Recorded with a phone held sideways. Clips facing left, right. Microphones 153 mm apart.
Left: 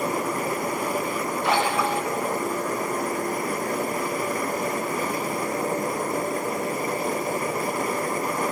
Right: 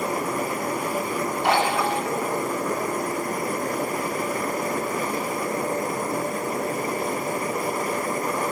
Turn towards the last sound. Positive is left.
turn(degrees=-75)  # may be behind; listen again after turning